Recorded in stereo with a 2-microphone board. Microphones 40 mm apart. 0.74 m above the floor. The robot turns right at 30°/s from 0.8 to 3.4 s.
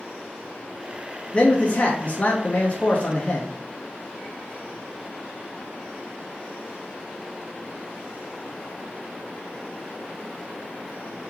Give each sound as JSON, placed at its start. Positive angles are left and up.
{"t": 1.3, "sound": "a man speaking", "azimuth_deg": 55, "distance_m": 0.7}